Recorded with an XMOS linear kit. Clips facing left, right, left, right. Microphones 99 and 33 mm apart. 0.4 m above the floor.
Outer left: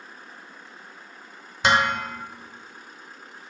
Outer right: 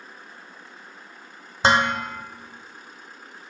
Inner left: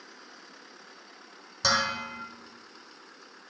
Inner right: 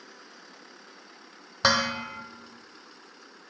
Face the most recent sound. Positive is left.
turn(degrees=-35)  # may be behind; listen again after turning